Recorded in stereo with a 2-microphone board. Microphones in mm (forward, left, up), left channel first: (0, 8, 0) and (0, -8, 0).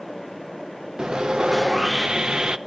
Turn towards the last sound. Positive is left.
turn(degrees=-70)  # may be behind; listen again after turning